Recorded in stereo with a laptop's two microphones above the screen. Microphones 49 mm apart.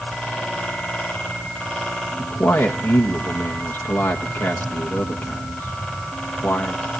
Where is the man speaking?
60° left (ahead or behind), 1.5 m.